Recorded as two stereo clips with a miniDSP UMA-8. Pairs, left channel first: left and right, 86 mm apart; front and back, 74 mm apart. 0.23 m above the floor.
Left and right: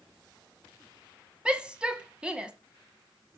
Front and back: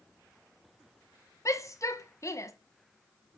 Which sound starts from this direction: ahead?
A shout, at 1.4 s.